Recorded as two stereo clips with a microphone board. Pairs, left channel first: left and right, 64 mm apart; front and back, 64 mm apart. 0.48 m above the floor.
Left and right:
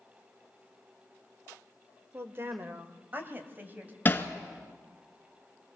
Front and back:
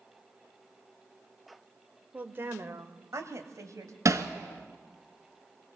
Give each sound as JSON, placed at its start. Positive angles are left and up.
{"t": 2.1, "sound": "a woman speaking", "azimuth_deg": -125, "distance_m": 1.1}
{"t": 4.0, "sound": "hammering", "azimuth_deg": 150, "distance_m": 1.5}